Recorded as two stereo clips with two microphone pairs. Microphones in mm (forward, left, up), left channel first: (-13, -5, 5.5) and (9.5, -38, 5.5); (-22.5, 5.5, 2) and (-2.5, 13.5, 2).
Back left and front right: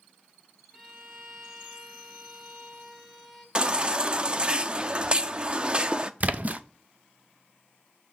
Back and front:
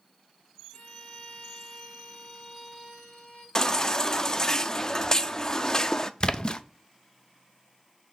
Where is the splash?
105° right, 0.6 m.